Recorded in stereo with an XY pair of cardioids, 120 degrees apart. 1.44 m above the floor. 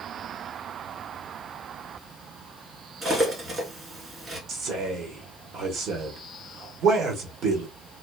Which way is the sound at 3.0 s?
30° right.